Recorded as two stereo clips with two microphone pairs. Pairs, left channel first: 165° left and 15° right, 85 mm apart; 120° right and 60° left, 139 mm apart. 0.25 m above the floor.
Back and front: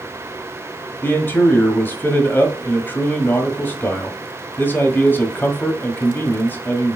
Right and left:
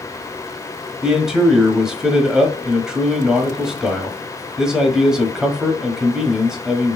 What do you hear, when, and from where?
1.0 s a man speaking: 140° left, 1.4 m